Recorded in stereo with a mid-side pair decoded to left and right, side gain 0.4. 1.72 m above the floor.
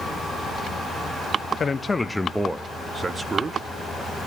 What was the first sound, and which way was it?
A man speaking, 40° left.